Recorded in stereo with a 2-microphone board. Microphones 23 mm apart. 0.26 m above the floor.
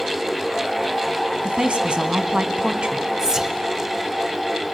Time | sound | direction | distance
1.4 | a woman speaking | 55° right (ahead or behind) | 1.7 m
3.2 | whispering | 30° right (ahead or behind) | 1.1 m